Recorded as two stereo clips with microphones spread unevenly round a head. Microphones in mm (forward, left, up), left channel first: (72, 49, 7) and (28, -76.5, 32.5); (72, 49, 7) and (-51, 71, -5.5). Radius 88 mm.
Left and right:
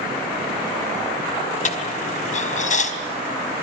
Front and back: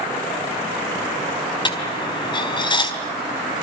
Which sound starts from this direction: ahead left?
A dropped coin, at 1.6 s.